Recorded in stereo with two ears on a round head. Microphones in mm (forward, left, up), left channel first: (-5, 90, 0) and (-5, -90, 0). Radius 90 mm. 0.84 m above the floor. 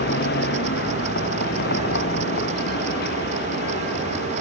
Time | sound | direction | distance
0.0 | a vehicle | 55° left (ahead or behind) | ?